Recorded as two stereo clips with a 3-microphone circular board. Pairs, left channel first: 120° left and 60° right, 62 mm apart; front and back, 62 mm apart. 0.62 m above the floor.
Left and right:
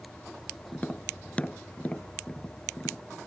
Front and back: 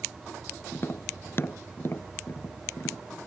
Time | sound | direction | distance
0.7 | tapping | 50° left | ?